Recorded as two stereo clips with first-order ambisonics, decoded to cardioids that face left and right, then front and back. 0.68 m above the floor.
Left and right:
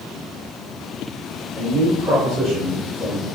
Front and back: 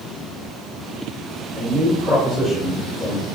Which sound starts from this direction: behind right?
A man speaking, at 1.6 s.